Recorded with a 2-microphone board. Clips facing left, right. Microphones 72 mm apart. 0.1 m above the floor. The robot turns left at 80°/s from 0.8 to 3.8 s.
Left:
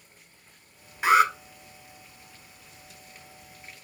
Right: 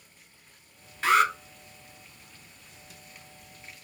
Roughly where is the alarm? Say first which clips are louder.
Left 2 dB; centre.